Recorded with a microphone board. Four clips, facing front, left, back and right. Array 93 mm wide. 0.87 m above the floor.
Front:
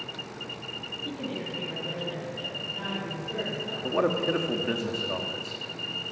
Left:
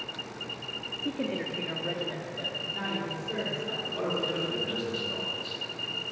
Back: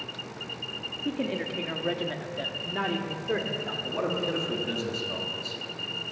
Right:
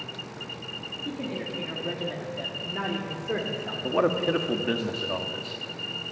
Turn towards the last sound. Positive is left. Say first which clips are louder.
# right 9 dB, front 5 dB
turn(degrees=-60)